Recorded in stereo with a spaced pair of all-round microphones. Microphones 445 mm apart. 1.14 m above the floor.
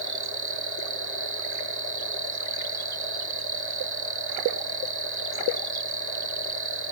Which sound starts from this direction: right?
An insect, at 0.0 s.